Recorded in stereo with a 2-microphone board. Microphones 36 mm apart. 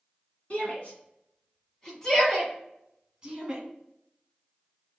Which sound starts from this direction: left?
A shout, at 0.5 s.